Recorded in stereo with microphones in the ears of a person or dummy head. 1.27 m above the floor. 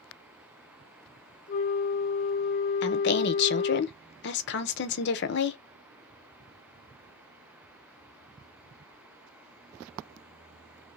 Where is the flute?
40° left (ahead or behind), 0.9 m.